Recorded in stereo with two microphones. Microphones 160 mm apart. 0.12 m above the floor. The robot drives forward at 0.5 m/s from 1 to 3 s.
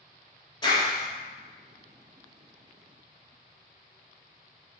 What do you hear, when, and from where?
0.6 s a clap: 30° left (ahead or behind), 1.2 m; by 1.1 s 25° left (ahead or behind), 1.2 m